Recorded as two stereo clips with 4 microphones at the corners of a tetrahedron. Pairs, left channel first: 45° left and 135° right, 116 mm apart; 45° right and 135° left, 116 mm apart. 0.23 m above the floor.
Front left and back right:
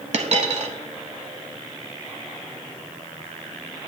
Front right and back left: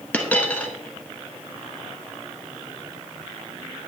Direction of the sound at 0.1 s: 120° right.